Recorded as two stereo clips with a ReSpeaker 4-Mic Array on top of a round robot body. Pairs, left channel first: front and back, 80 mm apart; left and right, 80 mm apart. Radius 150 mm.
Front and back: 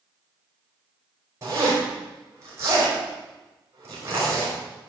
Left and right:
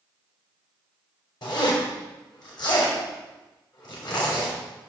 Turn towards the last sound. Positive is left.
turn(degrees=125)